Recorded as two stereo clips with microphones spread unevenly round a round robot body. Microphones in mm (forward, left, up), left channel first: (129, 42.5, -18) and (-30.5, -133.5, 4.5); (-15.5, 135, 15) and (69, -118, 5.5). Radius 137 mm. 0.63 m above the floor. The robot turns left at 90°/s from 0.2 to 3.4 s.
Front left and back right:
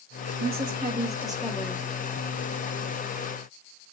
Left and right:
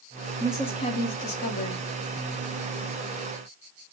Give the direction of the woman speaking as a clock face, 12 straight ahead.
5 o'clock.